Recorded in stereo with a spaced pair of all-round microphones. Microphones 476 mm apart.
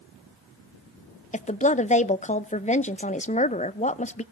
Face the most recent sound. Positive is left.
turn(degrees=15)  # may be behind; listen again after turning